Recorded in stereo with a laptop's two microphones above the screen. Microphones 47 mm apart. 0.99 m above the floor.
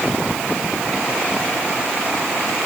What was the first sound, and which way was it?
Only background noise.